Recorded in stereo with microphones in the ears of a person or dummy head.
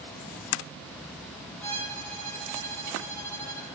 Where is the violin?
10° left (ahead or behind), 9.5 m.